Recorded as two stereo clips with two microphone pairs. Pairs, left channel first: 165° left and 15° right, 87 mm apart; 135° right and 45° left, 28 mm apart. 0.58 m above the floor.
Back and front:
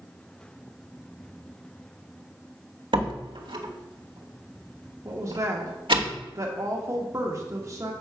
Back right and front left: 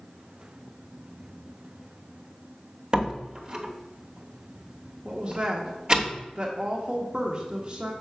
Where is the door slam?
10° right, 1.1 m.